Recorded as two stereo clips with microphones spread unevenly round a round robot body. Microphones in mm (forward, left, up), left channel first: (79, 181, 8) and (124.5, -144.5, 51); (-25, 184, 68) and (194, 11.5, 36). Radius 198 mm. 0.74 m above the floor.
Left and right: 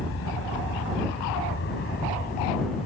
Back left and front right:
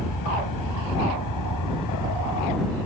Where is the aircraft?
150° left; by 2.9 s 170° left.